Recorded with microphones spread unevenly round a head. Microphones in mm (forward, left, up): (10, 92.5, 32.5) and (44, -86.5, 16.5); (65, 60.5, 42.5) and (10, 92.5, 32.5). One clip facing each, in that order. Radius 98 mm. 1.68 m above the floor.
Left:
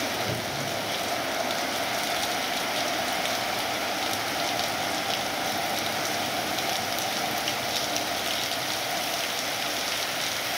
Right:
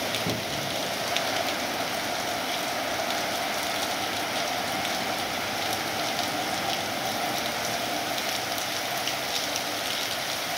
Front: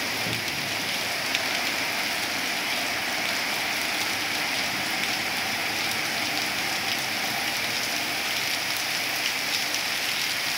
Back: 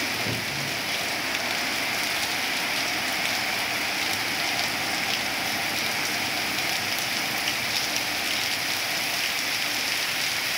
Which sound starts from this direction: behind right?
A cupboard door, at 0.3 s.